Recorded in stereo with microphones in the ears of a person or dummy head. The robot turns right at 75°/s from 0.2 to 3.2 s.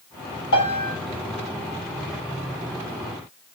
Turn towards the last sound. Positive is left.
turn(degrees=-50)